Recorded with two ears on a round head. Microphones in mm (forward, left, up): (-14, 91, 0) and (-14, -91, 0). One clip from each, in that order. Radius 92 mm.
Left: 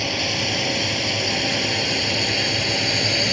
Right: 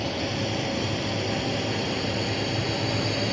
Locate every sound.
0.0 s a drone: 65° left (ahead or behind)